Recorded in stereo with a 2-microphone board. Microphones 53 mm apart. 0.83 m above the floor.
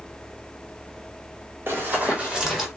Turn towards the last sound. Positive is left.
turn(degrees=0)  # may be behind; listen again after turning